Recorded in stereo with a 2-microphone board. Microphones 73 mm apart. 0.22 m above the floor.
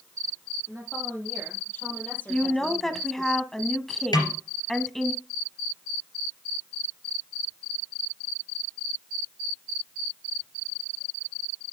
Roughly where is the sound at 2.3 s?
Centre.